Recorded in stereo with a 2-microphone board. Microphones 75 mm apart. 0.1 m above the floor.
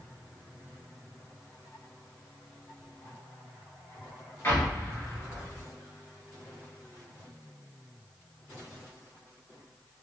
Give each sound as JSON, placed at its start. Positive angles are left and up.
{"t": 4.4, "sound": "an explosion", "side_deg": 30, "distance_m": 1.6}